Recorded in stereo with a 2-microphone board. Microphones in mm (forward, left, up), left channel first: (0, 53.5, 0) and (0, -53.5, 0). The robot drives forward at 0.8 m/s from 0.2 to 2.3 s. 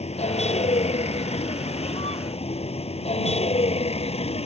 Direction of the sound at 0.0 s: 85° left.